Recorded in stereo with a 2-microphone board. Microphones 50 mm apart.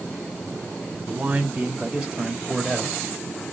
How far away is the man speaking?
About 1.2 m.